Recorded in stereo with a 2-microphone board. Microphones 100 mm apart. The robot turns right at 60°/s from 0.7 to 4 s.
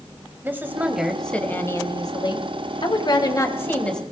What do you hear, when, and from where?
0.4 s a woman speaking: 25° right, 1.9 m; by 4.0 s 175° left, 1.9 m